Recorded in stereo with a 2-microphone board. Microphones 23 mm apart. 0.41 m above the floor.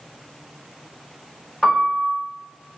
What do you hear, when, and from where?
1.6 s a piano: 25° left (ahead or behind), 1.0 m